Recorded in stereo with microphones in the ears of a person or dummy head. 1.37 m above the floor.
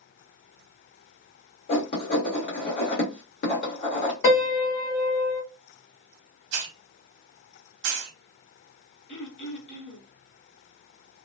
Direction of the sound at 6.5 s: 60° right (ahead or behind).